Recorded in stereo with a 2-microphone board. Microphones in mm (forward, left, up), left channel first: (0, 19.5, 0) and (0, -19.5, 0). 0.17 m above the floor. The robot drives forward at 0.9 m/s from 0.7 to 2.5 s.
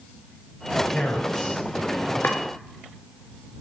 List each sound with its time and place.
0.9 s a man speaking: 35° left (ahead or behind), 3 m; by 2.1 s 25° left (ahead or behind), 3.5 m
2.2 s chopping: 55° left (ahead or behind), 3 m